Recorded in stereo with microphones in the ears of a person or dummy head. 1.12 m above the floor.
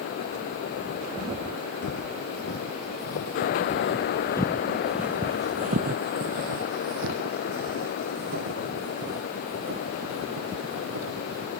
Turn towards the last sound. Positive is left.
turn(degrees=-75)  # may be behind; listen again after turning